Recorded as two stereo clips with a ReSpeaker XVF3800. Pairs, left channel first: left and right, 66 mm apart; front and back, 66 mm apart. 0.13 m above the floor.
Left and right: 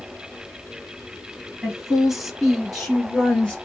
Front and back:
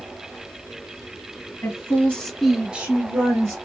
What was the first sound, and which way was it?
A woman speaking, 10° right.